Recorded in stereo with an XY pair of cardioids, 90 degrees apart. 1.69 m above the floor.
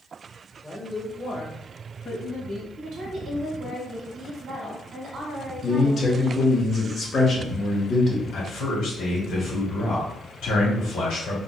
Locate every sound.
0.6 s a woman speaking: 5° left, 1.1 m; by 2.7 s 70° left, 2.5 m
2.8 s a woman speaking: 60° right, 1.5 m
5.6 s a man speaking: 30° left, 1.5 m
8.3 s a man speaking: 65° left, 1.6 m